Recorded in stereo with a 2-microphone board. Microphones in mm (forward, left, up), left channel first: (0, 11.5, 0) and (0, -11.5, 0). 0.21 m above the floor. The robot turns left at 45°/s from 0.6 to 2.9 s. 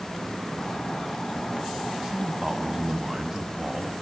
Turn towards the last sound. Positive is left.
turn(degrees=-20)  # may be behind; listen again after turning